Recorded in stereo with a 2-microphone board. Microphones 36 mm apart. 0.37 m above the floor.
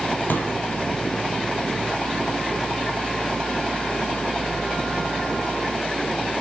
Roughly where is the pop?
Left.